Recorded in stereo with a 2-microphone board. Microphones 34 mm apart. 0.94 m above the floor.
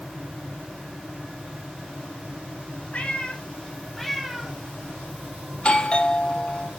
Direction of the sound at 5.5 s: 30° left (ahead or behind).